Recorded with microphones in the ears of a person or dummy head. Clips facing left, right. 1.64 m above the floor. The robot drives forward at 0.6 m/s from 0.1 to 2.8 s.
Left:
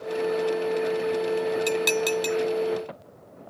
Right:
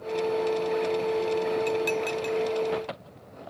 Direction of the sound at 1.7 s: 65° left (ahead or behind).